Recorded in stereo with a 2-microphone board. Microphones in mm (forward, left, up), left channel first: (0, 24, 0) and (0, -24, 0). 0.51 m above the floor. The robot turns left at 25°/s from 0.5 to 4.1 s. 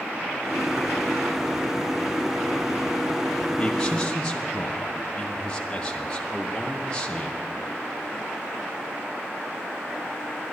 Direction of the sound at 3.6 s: 20° left (ahead or behind).